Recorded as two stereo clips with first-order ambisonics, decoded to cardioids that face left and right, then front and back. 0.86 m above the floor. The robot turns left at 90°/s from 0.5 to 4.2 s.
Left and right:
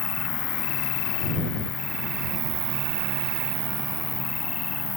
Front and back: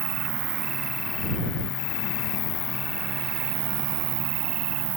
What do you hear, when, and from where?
0.0 s an insect: 135° left; by 5.0 s 160° left